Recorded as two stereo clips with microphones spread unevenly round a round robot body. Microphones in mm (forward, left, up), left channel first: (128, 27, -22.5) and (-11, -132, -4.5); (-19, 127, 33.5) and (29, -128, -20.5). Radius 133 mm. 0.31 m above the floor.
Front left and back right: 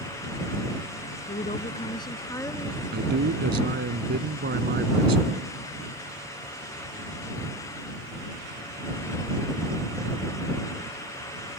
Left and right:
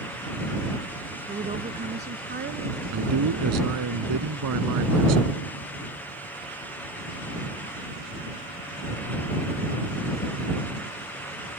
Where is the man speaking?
95° right.